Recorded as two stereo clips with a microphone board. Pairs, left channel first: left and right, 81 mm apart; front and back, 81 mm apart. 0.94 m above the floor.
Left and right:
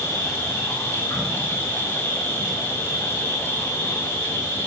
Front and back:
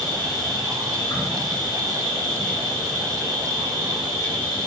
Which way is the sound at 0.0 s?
30° left.